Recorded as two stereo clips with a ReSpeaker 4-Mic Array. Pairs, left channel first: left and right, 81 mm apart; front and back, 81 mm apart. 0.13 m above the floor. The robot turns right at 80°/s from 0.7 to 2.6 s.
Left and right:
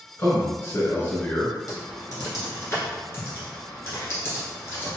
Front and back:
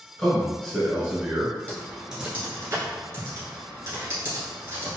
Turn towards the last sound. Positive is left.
turn(degrees=135)